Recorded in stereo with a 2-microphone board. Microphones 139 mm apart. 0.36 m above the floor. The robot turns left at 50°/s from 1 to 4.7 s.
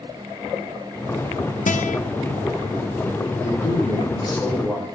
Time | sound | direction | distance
1.7 | a guitar | 70° left (ahead or behind) | 0.5 m
3.4 | a man speaking | 75° left | 4.5 m